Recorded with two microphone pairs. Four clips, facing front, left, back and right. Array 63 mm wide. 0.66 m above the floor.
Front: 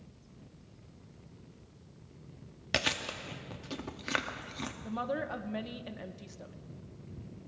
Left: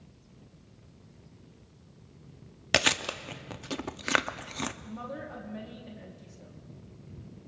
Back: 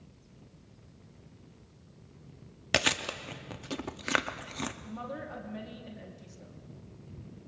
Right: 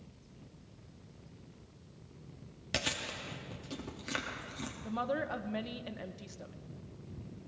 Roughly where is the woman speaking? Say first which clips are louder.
Right 5 dB, front 5 dB; ahead right.